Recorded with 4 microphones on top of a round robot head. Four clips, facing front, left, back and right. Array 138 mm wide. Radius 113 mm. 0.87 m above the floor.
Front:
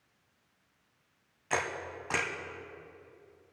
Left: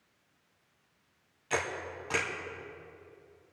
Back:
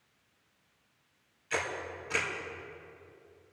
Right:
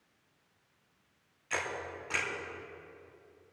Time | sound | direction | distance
1.5 | a camera shutter | 25° left | 2 m